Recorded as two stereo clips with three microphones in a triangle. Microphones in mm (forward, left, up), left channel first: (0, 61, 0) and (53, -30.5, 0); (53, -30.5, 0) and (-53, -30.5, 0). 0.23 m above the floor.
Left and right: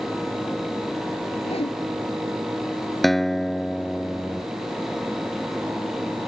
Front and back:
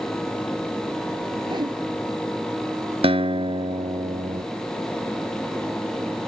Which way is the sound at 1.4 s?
135° left.